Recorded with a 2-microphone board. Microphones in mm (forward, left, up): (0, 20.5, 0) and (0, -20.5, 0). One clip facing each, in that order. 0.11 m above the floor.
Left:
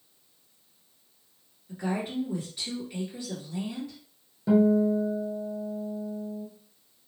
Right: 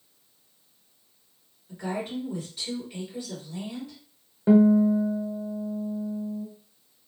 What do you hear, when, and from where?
1.7 s a woman speaking: 20° left (ahead or behind), 1.7 m
4.5 s a guitar: 35° right (ahead or behind), 0.7 m